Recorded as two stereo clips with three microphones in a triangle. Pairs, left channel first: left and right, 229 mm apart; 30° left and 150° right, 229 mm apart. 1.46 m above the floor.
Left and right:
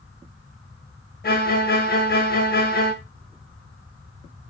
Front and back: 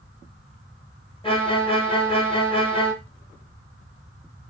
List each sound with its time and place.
1.2 s a violin: 85° left, 0.7 m